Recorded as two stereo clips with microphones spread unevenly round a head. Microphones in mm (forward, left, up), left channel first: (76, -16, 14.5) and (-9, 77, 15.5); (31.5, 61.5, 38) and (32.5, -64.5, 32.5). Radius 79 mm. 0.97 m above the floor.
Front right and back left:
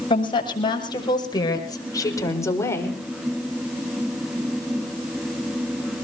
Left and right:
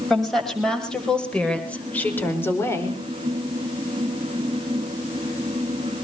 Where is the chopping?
I don't hear chopping.